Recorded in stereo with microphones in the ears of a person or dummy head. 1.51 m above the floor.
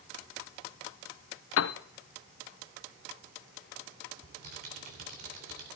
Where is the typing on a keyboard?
55° right (ahead or behind), 3.5 m.